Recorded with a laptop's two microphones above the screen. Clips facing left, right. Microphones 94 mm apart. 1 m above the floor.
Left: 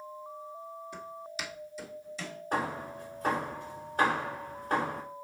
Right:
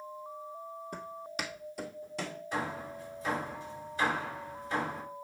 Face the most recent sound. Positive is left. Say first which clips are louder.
# left 4 dB
turn(degrees=50)  # may be behind; listen again after turning